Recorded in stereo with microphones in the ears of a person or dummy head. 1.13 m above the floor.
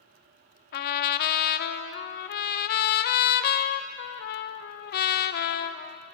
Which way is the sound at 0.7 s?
60° left (ahead or behind).